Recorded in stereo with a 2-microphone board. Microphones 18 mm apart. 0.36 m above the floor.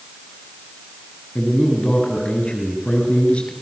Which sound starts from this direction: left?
A man speaking, at 1.4 s.